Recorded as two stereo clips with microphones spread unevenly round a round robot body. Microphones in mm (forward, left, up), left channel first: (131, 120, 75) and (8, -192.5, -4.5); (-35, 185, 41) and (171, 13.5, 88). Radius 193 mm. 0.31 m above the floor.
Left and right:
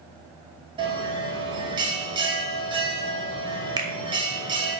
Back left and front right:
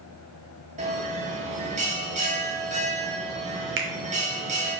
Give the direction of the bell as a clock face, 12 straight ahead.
3 o'clock.